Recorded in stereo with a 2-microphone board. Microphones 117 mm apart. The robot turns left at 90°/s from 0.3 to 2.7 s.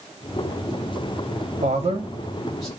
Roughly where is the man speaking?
Right.